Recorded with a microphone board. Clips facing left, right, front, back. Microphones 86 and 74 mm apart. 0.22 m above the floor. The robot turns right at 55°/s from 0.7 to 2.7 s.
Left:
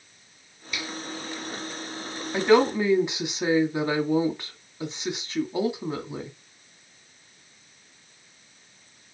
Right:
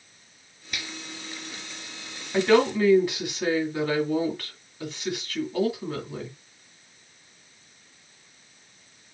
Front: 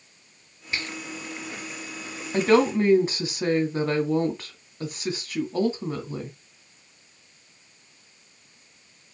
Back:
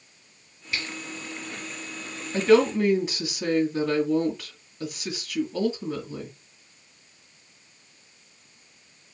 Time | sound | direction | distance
0.7 | a finger snap | 60° right | 3.5 m
2.3 | a woman speaking | 10° left | 2 m